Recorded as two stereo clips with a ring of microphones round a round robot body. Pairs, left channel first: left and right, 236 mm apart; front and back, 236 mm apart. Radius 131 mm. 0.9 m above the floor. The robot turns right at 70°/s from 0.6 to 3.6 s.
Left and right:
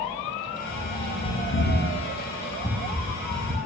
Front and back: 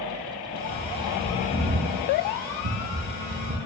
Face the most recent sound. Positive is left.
turn(degrees=-130)